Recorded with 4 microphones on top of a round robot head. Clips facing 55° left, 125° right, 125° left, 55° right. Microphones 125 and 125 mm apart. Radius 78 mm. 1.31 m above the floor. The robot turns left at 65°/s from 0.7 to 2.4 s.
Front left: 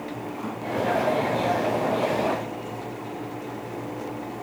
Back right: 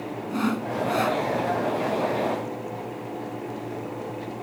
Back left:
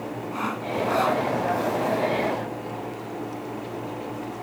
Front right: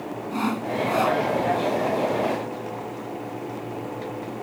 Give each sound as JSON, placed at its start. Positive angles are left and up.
{"t": 0.3, "sound": "sawing", "azimuth_deg": -115}